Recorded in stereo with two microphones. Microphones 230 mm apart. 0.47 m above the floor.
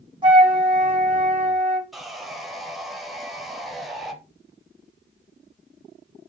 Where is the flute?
20° right (ahead or behind), 2 m.